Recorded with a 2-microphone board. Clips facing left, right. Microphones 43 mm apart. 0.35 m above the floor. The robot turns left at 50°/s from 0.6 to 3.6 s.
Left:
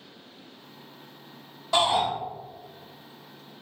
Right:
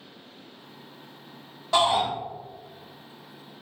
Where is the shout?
15° right (ahead or behind), 1.5 m; by 2.1 s 25° right (ahead or behind), 1.5 m.